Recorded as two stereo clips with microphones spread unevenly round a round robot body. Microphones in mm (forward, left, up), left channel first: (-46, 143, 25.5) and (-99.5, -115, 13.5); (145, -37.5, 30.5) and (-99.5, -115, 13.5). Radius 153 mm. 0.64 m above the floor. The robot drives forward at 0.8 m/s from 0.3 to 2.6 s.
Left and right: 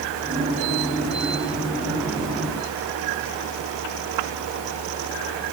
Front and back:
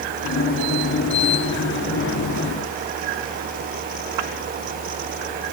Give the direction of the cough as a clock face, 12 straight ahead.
I don't hear a cough.